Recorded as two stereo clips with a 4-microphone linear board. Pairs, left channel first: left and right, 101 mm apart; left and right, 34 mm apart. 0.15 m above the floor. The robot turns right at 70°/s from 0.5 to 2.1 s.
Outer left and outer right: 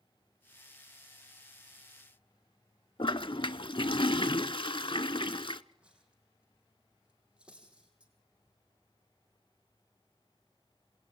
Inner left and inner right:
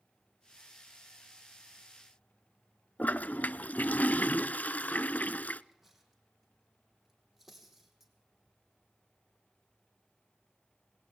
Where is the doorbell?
No doorbell in this recording.